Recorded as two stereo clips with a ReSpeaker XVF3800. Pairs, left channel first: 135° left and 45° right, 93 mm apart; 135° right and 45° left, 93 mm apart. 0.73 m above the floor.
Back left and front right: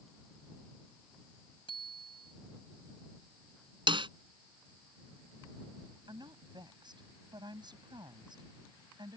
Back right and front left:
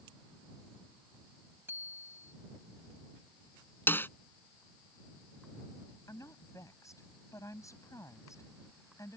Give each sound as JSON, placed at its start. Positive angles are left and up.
{"t": 1.7, "sound": "a bicycle bell", "azimuth_deg": 110}
{"t": 3.9, "sound": "a snare drum", "azimuth_deg": -70}
{"t": 6.1, "sound": "a woman speaking", "azimuth_deg": -80}